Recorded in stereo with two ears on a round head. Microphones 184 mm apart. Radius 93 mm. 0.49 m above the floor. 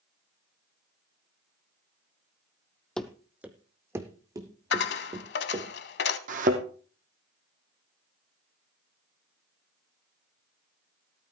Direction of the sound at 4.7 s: 55° left (ahead or behind).